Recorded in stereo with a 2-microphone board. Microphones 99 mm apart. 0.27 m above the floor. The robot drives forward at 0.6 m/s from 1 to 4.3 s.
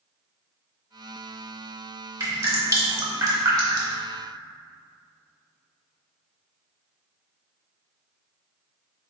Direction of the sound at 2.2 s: 30° right (ahead or behind).